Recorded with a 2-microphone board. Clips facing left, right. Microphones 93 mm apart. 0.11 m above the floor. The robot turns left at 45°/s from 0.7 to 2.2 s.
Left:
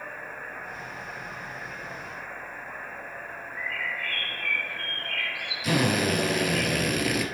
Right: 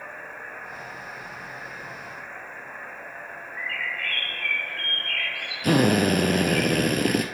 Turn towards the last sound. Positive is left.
turn(degrees=-50)  # may be behind; listen again after turning